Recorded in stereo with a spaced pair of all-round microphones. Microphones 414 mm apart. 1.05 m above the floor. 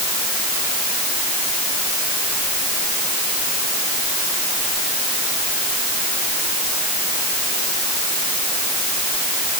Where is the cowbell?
No cowbell in this recording.